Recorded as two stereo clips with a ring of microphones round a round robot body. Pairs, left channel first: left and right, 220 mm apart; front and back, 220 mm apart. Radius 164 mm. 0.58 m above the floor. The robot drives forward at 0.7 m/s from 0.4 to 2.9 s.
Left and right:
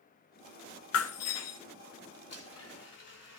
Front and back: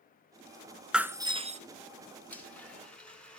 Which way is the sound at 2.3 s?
80° left.